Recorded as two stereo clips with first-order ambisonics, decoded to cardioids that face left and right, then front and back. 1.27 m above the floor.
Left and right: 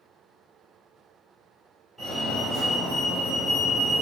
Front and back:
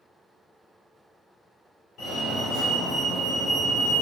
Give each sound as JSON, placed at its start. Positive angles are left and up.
{"t": 2.0, "sound": "a fire alarm", "azimuth_deg": 0, "distance_m": 0.9}